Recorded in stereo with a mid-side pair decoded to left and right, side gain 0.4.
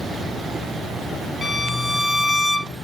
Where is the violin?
15° left, 0.6 m.